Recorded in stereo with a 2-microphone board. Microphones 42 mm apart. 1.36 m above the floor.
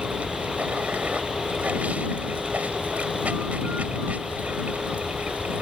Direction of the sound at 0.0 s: 35° right (ahead or behind).